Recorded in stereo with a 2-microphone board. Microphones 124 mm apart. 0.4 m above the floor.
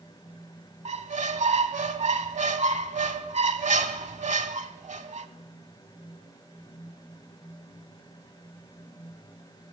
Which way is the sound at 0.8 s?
75° right (ahead or behind).